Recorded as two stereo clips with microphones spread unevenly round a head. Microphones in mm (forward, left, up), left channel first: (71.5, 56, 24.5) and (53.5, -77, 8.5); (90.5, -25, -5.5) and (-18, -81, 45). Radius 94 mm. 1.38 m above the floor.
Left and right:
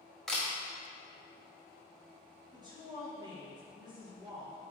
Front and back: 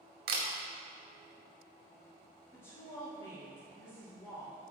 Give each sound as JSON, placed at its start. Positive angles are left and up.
{"t": 0.3, "sound": "a camera shutter", "azimuth_deg": 170, "distance_m": 0.8}
{"t": 2.5, "sound": "a woman speaking", "azimuth_deg": -40, "distance_m": 1.8}